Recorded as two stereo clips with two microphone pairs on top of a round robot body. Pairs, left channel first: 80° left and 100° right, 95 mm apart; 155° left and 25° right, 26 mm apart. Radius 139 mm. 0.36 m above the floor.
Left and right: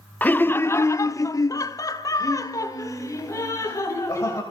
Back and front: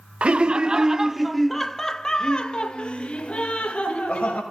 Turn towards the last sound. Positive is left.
turn(degrees=140)